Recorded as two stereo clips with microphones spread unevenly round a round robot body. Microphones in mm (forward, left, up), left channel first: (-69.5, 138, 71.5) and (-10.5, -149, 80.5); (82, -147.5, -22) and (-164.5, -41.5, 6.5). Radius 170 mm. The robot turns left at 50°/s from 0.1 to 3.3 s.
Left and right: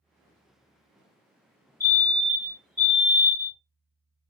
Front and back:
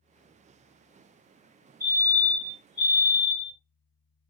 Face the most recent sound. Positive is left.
turn(degrees=-5)